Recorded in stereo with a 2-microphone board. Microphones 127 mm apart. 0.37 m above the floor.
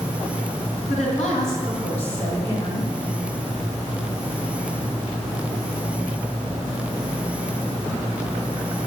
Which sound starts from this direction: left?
A woman speaking, at 0.9 s.